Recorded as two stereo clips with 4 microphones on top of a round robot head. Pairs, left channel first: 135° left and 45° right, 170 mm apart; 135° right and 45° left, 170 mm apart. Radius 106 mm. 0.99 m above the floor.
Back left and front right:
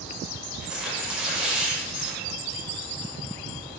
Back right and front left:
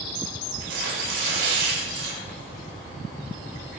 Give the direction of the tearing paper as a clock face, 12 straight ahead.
11 o'clock.